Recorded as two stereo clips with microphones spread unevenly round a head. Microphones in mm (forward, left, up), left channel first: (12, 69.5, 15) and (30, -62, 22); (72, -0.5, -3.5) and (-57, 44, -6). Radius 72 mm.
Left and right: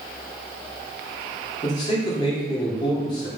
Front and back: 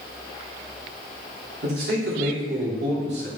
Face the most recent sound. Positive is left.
turn(degrees=160)